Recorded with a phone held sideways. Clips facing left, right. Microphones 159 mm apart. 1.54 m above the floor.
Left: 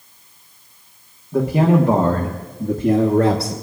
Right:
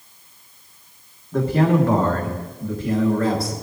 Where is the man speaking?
10° left (ahead or behind), 1.4 m; by 3.5 s 75° left (ahead or behind), 1.3 m.